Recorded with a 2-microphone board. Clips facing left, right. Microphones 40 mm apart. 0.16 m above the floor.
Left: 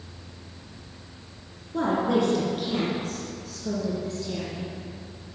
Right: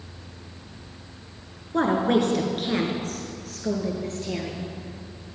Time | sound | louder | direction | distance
1.7 | a woman speaking | right 2 dB | 55° right (ahead or behind) | 2.5 m